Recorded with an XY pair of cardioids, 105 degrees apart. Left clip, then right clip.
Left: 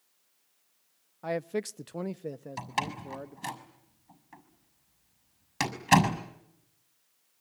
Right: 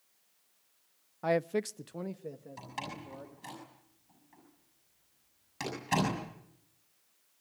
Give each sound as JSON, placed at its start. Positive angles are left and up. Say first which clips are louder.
{"t": 1.2, "sound": "a man speaking", "louder": "right 2 dB", "azimuth_deg": -30, "distance_m": 0.6}
{"t": 2.6, "sound": "a door slam", "louder": "left 10 dB", "azimuth_deg": 70, "distance_m": 6.0}